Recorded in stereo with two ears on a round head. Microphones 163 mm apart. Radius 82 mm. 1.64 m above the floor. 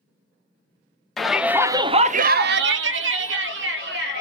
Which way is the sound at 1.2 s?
Centre (ahead or behind).